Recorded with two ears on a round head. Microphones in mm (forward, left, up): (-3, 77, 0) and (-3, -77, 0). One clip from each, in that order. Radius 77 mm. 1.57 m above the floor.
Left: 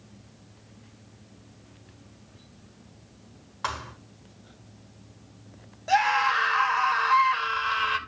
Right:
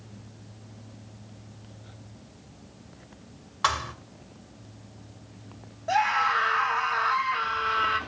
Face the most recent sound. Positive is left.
turn(degrees=75)  # may be behind; listen again after turning